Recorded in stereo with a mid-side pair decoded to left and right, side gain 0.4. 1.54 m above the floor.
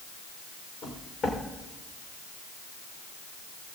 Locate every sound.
0.8 s footsteps: 60° left, 6 m